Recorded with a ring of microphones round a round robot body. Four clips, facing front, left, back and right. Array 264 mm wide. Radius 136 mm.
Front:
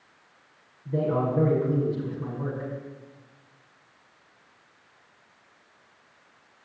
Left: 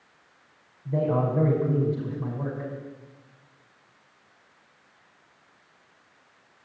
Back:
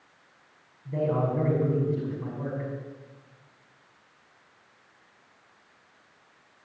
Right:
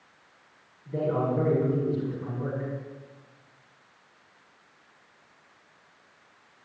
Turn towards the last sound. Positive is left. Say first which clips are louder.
# left 2 dB, front 1 dB
turn(degrees=95)